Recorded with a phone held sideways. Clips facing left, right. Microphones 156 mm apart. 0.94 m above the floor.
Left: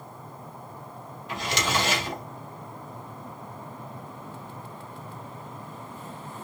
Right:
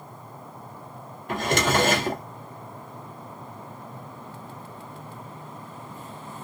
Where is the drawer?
50° right (ahead or behind), 0.6 m.